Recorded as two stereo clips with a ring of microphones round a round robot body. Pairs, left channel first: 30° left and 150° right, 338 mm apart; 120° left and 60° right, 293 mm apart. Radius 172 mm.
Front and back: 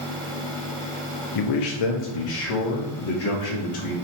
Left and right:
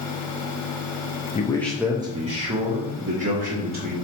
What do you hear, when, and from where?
1.4 s a man speaking: 50° left, 0.5 m; by 4.0 s 10° right, 1.6 m